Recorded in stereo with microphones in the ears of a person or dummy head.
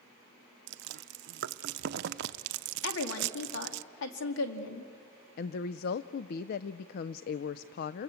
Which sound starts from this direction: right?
Chewing, at 0.7 s.